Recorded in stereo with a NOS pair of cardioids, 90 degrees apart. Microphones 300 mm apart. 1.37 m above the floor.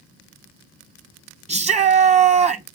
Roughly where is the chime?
I don't hear a chime.